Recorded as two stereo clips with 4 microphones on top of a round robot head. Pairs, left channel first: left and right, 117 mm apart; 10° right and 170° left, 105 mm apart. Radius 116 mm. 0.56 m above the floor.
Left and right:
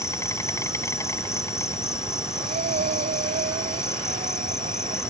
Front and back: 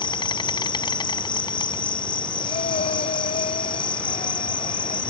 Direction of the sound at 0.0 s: 25° left.